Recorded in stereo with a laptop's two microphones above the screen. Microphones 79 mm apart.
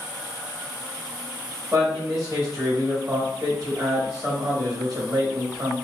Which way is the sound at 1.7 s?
45° right (ahead or behind).